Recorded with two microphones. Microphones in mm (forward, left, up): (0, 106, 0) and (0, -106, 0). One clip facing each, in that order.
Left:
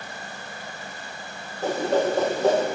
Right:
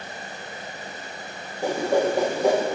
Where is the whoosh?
15° right (ahead or behind), 0.9 m.